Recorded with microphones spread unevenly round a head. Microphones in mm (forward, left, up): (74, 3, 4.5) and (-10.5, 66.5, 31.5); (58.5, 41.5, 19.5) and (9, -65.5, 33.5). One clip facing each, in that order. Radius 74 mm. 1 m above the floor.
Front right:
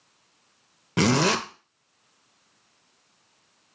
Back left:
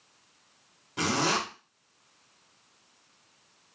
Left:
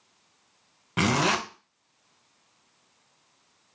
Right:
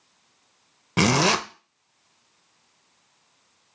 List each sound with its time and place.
1.0 s a zipper: 60° right, 0.5 m